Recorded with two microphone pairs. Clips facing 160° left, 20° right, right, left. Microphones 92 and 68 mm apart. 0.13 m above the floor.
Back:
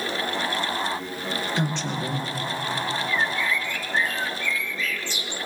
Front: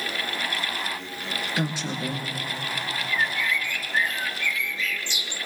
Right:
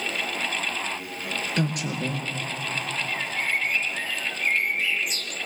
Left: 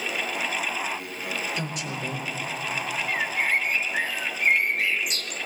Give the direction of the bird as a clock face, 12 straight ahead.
8 o'clock.